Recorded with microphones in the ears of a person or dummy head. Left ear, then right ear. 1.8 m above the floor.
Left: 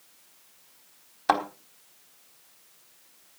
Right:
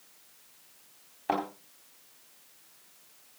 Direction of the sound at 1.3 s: 65° left (ahead or behind).